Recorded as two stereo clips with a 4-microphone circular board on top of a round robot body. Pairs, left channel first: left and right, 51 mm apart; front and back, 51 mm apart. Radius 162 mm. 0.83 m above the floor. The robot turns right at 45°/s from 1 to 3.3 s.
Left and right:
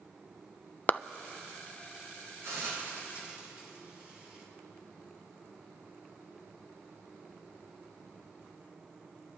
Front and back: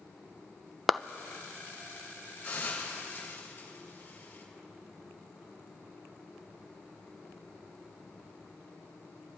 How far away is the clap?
About 0.5 m.